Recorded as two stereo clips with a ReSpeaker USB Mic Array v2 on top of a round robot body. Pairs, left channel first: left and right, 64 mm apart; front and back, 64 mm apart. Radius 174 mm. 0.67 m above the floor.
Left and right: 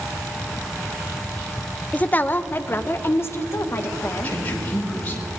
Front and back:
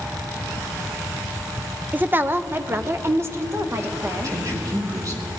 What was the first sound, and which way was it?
A woman speaking, 140° left.